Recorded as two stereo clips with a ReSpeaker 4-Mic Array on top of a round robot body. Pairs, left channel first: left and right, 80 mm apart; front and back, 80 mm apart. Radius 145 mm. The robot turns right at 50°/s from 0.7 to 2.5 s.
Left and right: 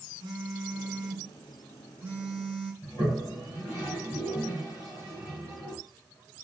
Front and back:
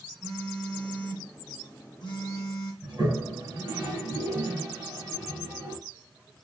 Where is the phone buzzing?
90° right, 0.6 m; by 2.7 s straight ahead, 0.6 m.